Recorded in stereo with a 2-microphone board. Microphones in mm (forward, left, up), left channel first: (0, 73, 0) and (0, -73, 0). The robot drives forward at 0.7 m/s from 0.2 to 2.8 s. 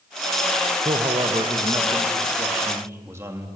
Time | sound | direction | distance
0.8 | a man speaking | 40° right (ahead or behind) | 1.2 m